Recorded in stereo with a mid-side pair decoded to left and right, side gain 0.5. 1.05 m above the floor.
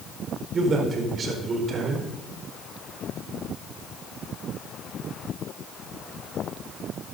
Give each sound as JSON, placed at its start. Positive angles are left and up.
{"t": 0.5, "sound": "a man speaking", "azimuth_deg": -45, "distance_m": 4.0}